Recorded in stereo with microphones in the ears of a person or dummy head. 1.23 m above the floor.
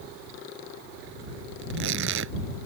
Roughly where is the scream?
I don't hear a scream.